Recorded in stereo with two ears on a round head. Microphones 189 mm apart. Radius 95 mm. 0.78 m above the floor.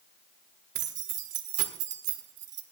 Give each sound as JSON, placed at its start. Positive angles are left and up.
{"t": 0.8, "sound": "keys jangling", "side_deg": -55, "distance_m": 1.9}